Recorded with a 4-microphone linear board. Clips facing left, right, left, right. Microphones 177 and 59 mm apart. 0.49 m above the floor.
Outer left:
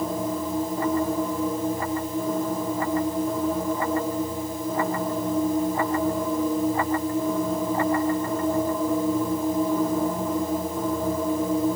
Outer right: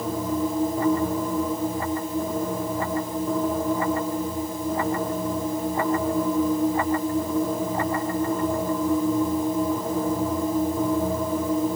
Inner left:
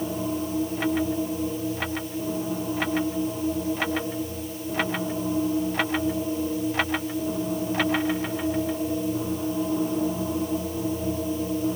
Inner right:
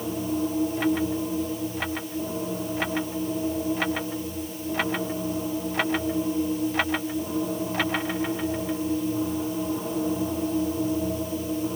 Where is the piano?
I don't hear a piano.